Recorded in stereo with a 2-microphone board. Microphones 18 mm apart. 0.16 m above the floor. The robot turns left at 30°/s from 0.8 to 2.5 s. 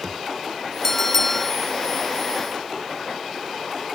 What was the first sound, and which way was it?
A bell, 25° left (ahead or behind).